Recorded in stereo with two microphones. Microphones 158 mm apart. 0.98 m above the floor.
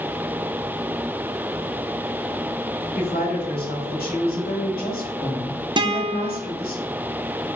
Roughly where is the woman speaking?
Left.